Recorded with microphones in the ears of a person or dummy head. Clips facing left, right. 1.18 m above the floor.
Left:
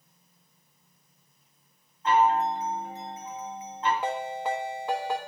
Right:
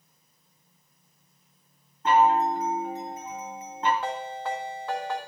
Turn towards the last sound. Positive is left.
turn(degrees=10)  # may be behind; listen again after turning